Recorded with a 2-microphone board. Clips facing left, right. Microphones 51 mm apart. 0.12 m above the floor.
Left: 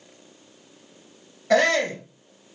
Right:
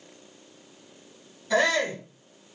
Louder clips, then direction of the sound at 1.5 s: Left 4 dB; 60° left (ahead or behind).